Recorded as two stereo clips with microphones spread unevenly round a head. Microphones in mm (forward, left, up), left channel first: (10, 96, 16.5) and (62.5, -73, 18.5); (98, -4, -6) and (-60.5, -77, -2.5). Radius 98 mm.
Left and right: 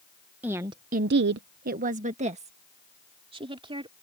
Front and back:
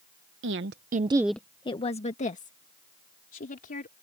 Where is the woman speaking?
155° right; by 3.9 s 10° right.